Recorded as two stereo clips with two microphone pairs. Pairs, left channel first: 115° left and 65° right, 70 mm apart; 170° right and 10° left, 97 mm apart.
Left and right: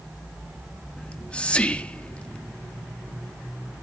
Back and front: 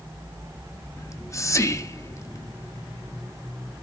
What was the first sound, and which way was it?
Whispering, 170° left.